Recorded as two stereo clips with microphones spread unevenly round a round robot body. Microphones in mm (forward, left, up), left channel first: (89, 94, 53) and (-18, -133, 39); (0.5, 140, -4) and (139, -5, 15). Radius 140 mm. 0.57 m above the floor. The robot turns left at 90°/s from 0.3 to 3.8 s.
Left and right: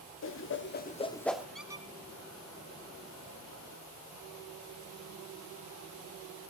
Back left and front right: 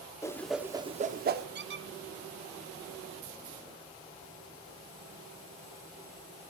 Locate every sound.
0.2 s a whoosh: 65° left, 1.3 m; by 1.4 s 35° right, 1.3 m
1.6 s a squeak: 20° right, 0.8 m; by 1.9 s 50° right, 0.8 m